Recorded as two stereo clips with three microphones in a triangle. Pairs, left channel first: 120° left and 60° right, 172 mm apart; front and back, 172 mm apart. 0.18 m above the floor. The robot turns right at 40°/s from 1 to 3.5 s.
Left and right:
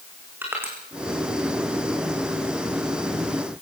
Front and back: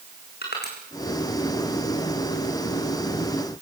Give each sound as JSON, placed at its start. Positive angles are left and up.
{"t": 0.4, "sound": "crushing", "azimuth_deg": 15, "distance_m": 6.0}